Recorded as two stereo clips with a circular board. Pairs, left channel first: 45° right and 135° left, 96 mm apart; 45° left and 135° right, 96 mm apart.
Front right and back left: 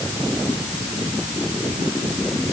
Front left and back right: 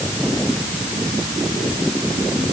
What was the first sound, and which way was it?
Only background noise.